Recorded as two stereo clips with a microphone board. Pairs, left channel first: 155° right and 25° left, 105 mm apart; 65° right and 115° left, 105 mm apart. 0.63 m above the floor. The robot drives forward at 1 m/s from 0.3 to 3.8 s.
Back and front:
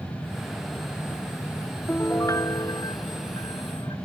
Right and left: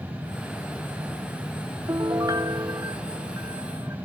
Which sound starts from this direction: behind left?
A piano, at 1.9 s.